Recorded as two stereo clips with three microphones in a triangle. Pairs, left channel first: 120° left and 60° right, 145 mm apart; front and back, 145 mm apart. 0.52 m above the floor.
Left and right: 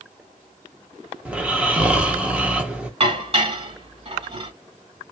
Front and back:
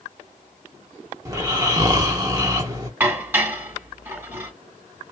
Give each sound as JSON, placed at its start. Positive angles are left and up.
{"t": 1.2, "sound": "snoring", "azimuth_deg": -135, "distance_m": 0.8}
{"t": 3.0, "sound": "dishes clattering", "azimuth_deg": -105, "distance_m": 1.5}